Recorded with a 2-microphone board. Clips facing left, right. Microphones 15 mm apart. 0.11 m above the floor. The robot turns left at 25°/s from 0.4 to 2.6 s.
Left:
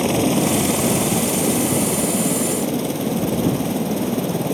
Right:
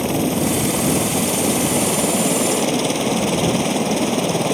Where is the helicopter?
5° left; by 4.5 s 50° right.